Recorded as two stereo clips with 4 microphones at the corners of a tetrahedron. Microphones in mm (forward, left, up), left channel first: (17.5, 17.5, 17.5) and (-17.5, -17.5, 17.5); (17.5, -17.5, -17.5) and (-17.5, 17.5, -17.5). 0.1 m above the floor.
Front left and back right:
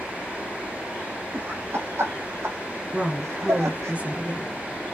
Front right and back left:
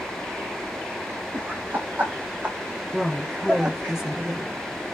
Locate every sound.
1.3 s laughter: 175° right, 4 m; by 3.9 s 155° right, 5 m
2.9 s a woman speaking: 160° right, 1.8 m